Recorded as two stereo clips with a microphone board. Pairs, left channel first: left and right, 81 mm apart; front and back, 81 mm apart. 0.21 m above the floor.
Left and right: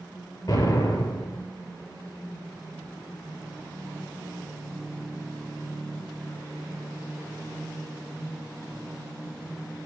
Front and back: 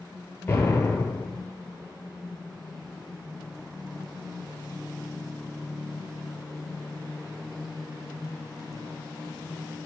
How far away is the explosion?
About 1.4 m.